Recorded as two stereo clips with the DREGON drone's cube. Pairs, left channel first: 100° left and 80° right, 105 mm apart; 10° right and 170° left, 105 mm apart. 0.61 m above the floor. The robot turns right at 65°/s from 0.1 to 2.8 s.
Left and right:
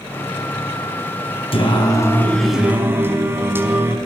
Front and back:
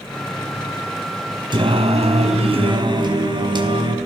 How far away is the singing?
About 4.5 m.